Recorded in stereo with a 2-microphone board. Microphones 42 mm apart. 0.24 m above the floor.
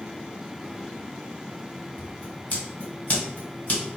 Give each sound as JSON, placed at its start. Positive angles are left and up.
{"t": 2.0, "sound": "scissors", "side_deg": 40, "distance_m": 2.0}